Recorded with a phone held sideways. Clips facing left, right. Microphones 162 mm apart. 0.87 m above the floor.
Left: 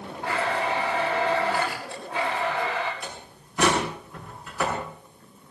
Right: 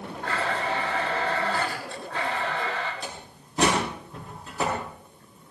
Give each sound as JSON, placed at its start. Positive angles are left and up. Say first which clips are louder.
{"t": 0.2, "sound": "a blender", "louder": "left 2 dB", "side_deg": 15, "distance_m": 6.5}
{"t": 3.0, "sound": "a door slam", "louder": "even", "side_deg": -30, "distance_m": 7.5}